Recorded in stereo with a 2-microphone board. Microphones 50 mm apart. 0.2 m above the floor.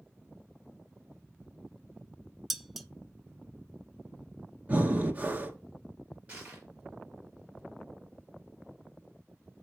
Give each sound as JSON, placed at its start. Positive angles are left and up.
{"t": 2.5, "sound": "dishes clattering", "side_deg": -5, "distance_m": 0.7}
{"t": 4.7, "sound": "breathing", "side_deg": -30, "distance_m": 1.3}
{"t": 6.3, "sound": "crushing", "side_deg": -25, "distance_m": 5.0}